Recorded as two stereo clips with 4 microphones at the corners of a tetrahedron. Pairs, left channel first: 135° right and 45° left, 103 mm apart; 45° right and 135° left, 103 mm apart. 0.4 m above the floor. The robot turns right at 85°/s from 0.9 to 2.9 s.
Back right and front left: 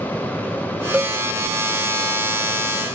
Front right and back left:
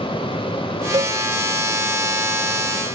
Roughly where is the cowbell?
Behind left.